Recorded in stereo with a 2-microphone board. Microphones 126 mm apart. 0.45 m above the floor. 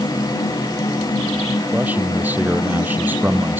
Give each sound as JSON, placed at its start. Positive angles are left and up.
{"t": 1.7, "sound": "a man speaking", "side_deg": -15}